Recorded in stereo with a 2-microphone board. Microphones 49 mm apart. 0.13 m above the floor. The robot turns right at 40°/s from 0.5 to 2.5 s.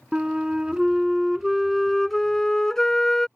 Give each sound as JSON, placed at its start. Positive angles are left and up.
{"t": 0.1, "sound": "a flute", "side_deg": -15}